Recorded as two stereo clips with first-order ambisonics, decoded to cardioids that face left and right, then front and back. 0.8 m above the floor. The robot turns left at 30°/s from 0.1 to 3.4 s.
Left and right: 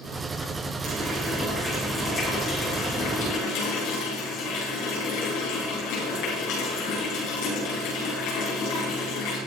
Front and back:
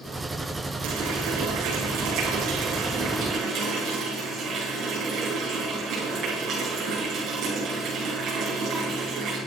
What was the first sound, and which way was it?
A running tap, 160° right.